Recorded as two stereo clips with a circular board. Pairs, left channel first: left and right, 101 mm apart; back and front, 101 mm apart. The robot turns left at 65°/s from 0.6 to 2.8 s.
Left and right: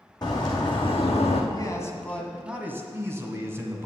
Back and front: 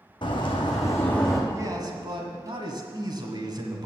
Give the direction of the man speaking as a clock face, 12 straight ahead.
10 o'clock.